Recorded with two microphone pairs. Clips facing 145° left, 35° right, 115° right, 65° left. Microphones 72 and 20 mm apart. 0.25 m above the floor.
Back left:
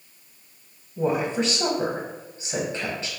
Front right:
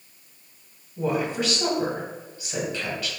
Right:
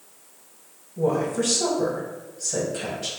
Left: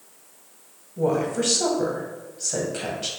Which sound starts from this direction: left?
A woman speaking, at 1.0 s.